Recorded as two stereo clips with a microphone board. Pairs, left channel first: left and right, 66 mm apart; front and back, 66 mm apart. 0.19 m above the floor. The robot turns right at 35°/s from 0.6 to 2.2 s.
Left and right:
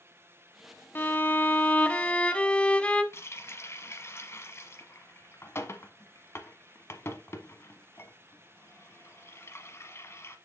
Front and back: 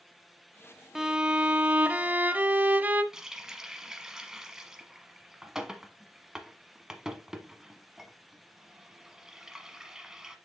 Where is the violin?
100° left, 0.6 m; by 3.0 s 145° left, 0.6 m.